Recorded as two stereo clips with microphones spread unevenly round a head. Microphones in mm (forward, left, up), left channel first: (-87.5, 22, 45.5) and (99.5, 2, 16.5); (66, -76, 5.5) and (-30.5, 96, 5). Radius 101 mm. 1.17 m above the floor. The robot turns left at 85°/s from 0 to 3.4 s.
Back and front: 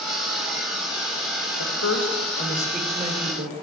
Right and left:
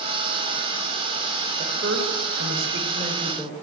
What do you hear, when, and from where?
1.6 s a woman speaking: 175° right, 3.5 m; by 3.6 s 30° left, 3.5 m